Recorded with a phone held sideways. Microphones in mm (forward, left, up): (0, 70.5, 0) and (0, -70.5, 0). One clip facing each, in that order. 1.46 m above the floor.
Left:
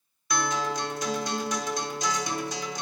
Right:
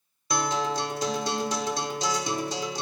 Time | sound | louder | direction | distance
0.3 | a guitar | right 2 dB | 30° right (ahead or behind) | 1.2 m